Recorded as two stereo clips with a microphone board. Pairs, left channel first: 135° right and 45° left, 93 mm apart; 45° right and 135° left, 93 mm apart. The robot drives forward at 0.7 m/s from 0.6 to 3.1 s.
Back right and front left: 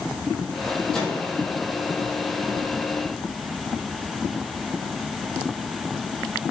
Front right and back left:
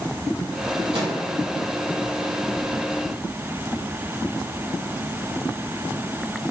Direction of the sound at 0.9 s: 140° left.